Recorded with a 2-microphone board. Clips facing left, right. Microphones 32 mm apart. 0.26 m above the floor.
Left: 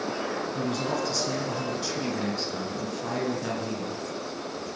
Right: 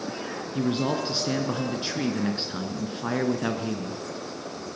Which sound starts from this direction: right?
A man speaking, at 0.6 s.